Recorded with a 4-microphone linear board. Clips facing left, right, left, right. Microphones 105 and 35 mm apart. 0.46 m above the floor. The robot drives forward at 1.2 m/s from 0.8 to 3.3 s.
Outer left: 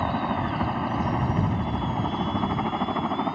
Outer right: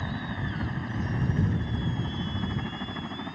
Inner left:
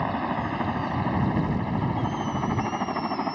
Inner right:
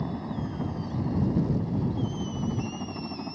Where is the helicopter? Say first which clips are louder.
Outer left 9 dB, inner left 6 dB; 65° left (ahead or behind).